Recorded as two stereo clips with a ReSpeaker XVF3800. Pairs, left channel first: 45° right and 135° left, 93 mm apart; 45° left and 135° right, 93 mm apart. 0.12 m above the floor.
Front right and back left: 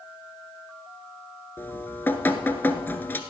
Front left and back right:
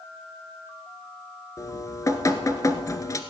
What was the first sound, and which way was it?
Dripping, 15° left.